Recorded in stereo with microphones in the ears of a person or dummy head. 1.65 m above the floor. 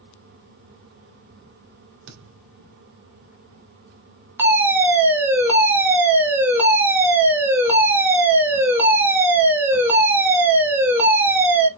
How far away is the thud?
About 2.5 m.